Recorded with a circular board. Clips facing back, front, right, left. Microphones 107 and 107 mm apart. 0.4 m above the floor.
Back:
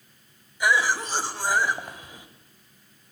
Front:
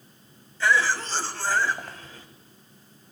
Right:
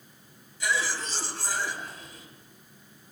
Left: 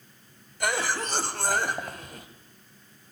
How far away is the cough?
About 2 m.